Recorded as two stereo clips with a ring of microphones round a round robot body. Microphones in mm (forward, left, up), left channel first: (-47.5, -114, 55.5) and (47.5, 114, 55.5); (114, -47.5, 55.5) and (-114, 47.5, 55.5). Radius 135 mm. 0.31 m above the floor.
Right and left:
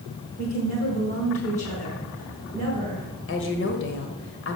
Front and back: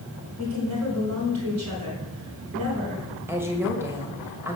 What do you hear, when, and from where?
0.4 s a woman speaking: 175° right, 4.5 m
3.3 s a woman speaking: 125° right, 1.4 m